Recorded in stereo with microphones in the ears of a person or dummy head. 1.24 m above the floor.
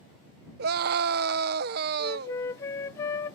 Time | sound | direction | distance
0.6 | a scream | 55° right (ahead or behind) | ?
2.0 | a flute | 15° left (ahead or behind) | ?